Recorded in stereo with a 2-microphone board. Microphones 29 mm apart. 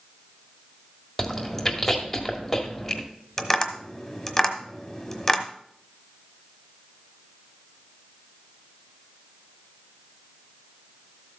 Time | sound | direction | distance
1.2 | chewing | 5° left (ahead or behind) | 1.7 m
3.4 | tapping | 10° left (ahead or behind) | 1.3 m